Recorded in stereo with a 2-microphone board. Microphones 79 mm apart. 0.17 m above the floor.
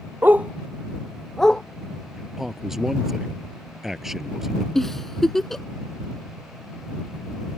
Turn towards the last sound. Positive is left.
turn(degrees=5)  # may be behind; listen again after turning